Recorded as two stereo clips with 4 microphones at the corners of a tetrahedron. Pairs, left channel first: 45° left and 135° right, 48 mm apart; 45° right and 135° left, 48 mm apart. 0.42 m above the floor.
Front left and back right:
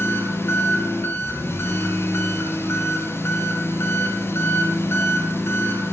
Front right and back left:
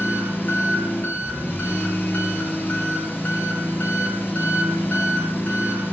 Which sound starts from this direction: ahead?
An engine running, at 0.0 s.